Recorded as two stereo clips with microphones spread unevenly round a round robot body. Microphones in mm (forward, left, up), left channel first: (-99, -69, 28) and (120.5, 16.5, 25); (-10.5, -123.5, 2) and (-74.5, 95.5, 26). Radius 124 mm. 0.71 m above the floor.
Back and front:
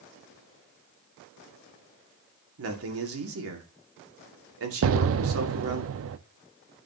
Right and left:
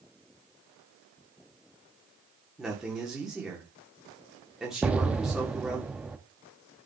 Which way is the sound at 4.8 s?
15° left.